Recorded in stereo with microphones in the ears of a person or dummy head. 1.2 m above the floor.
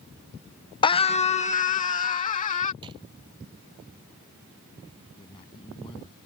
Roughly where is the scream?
Left.